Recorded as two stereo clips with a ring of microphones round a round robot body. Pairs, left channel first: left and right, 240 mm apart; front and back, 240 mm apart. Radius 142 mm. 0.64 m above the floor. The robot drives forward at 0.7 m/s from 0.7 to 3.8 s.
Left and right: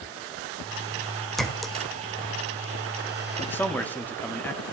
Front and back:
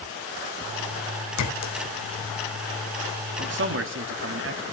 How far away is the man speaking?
About 1.4 m.